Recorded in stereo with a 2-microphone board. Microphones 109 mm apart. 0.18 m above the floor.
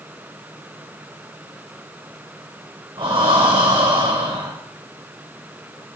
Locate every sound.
3.0 s breathing: 55° right (ahead or behind), 2 m